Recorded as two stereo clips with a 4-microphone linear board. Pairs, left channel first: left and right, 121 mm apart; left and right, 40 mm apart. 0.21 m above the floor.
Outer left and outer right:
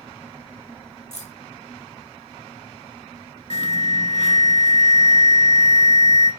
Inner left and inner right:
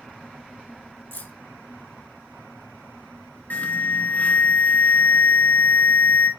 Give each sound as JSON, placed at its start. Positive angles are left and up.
{"t": 1.1, "sound": "keys jangling", "side_deg": 65, "distance_m": 2.5}
{"t": 3.5, "sound": "an alarm", "side_deg": 55, "distance_m": 1.9}